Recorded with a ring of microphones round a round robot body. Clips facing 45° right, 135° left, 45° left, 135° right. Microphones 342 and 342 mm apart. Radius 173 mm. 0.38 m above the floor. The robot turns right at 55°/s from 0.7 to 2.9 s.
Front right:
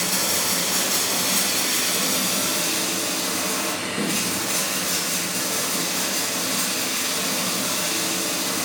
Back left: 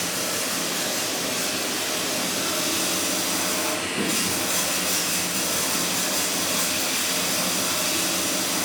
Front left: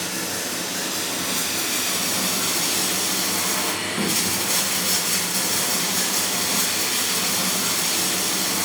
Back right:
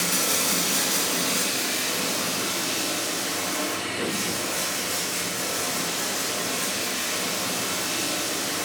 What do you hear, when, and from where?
0.0 s running water: 70° right, 1.6 m; by 8.7 s 50° left, 1.6 m